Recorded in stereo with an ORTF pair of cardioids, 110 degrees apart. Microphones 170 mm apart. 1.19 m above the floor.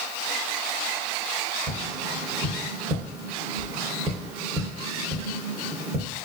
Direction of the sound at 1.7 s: 20° right.